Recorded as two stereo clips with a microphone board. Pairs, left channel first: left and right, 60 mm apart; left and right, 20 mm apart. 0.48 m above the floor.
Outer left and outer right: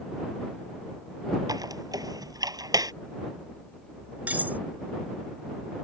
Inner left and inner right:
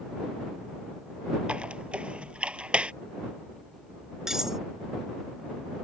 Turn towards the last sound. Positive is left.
turn(degrees=-25)  # may be behind; listen again after turning